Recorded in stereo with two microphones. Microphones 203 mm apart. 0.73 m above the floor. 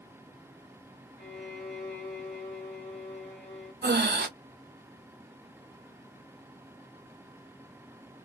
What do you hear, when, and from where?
1.2 s a violin: 70° left (ahead or behind), 1.5 m
3.8 s breathing: 55° right (ahead or behind), 0.5 m